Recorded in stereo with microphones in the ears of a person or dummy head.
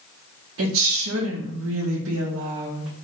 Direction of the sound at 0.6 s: 75° right (ahead or behind).